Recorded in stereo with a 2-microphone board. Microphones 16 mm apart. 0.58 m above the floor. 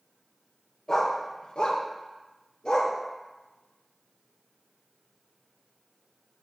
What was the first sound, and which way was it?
A dog barking, 30° left (ahead or behind).